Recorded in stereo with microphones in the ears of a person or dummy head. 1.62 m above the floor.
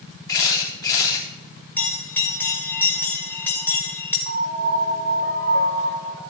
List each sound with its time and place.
0.3 s a camera shutter: 20° left (ahead or behind), 3.5 m
1.8 s a bell: 10° left (ahead or behind), 2.5 m
4.3 s a piano: 65° right (ahead or behind), 3 m